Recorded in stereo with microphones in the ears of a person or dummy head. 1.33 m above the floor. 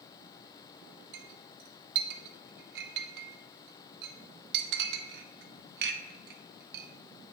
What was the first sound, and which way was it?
A clink, 55° right (ahead or behind).